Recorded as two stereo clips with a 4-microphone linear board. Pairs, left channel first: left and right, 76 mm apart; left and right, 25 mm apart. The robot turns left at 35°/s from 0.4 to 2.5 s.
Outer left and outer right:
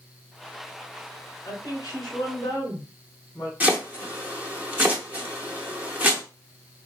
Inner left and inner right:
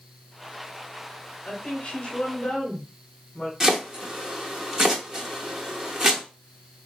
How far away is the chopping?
About 0.8 m.